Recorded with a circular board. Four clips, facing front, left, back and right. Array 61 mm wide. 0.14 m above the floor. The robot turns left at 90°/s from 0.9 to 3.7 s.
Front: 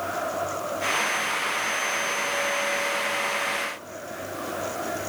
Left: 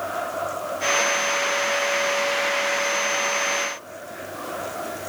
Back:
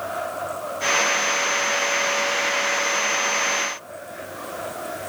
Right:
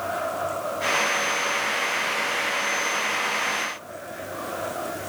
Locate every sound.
Only background noise.